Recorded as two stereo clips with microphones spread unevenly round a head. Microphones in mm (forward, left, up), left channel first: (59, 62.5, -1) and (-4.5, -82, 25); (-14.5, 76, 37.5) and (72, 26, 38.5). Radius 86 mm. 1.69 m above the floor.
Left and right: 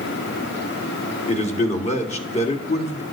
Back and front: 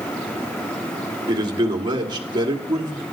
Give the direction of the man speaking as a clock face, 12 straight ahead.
11 o'clock.